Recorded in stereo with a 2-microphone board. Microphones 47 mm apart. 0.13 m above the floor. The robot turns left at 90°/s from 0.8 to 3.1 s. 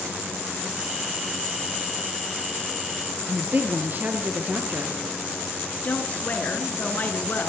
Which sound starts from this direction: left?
A woman speaking, at 5.8 s.